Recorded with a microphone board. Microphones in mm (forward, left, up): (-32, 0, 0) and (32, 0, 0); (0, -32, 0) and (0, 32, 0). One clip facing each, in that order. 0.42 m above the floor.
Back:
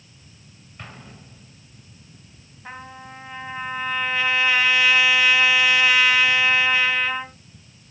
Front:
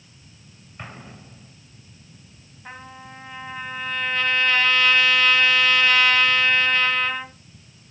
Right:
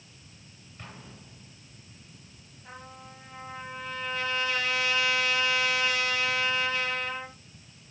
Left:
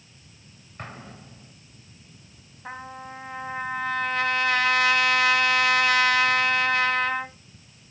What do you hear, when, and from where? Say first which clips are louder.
0.8 s an explosion: front 2 dB, left 7 dB; 70° left, 1.8 m
2.6 s a trumpet: back 2 dB, left 9 dB; 100° left, 1.2 m